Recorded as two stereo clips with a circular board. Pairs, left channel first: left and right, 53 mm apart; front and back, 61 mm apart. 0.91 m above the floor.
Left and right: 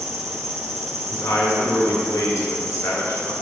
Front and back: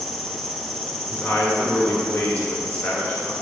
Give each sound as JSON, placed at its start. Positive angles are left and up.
{"t": 0.0, "sound": "an insect", "azimuth_deg": -85, "distance_m": 1.8}
{"t": 1.1, "sound": "a man speaking", "azimuth_deg": 60, "distance_m": 3.0}